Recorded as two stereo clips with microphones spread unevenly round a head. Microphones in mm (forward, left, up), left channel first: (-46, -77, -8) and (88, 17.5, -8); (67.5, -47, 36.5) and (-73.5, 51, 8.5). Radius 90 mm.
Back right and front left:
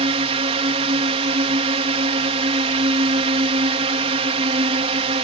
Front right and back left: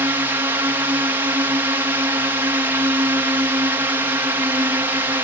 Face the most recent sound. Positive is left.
turn(degrees=80)